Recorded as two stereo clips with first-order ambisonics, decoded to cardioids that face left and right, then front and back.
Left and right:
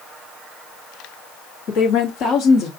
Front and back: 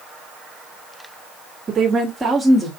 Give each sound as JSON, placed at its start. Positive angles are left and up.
{"t": 1.7, "sound": "a woman speaking", "azimuth_deg": 110, "distance_m": 1.4}